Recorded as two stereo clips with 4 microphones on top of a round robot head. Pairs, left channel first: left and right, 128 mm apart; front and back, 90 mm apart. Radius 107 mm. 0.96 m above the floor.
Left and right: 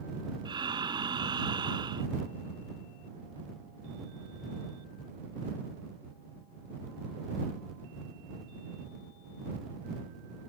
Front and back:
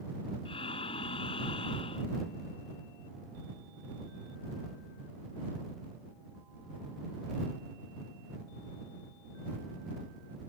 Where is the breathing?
35° right.